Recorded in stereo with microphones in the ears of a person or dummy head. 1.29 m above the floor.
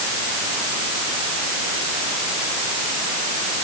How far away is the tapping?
I don't hear tapping.